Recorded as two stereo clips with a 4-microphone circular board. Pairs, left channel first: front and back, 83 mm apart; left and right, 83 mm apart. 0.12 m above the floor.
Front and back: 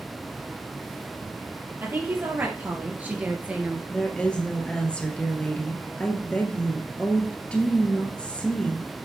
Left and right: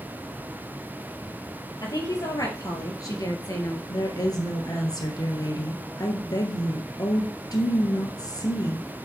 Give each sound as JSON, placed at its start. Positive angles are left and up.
{"t": 1.8, "sound": "a woman speaking", "azimuth_deg": 120, "distance_m": 3.0}
{"t": 3.9, "sound": "a woman speaking", "azimuth_deg": 75, "distance_m": 2.0}